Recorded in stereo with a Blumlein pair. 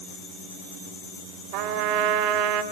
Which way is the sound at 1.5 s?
45° right.